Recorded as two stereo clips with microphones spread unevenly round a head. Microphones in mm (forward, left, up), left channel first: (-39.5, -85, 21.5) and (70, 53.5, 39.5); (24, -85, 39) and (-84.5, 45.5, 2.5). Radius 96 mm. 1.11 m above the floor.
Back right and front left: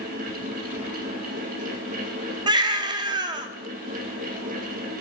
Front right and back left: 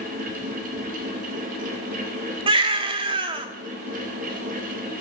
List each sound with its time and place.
0.0 s a fan: 95° left, 2.5 m
2.5 s a baby crying: 70° left, 0.6 m